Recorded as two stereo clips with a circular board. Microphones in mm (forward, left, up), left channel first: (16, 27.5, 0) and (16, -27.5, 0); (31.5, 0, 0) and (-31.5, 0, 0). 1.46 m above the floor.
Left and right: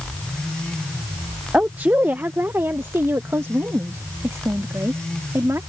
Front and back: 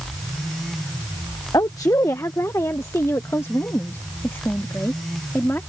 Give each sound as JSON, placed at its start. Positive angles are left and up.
{"t": 1.5, "sound": "a woman speaking", "azimuth_deg": -25}